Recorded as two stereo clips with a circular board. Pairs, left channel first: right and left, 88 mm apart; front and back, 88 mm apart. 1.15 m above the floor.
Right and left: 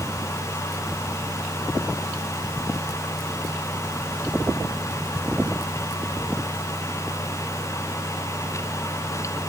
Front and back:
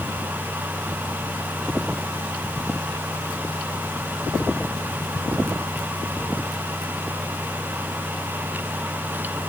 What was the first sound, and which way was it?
Only background noise.